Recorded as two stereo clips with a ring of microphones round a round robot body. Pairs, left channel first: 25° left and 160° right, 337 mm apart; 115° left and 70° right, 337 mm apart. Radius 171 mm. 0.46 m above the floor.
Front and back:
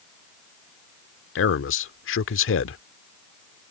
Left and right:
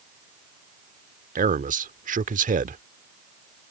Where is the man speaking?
10° right.